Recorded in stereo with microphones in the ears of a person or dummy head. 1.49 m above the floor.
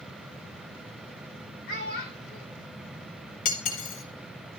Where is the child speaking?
60° left (ahead or behind), 3 m.